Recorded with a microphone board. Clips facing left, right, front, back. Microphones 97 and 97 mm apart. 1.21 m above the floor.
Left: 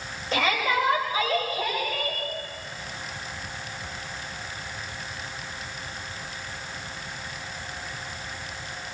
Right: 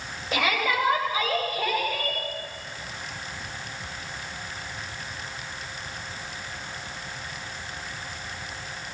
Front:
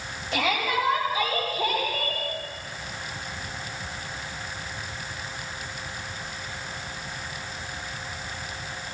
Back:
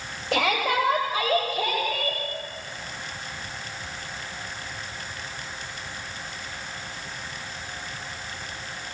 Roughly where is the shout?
Behind.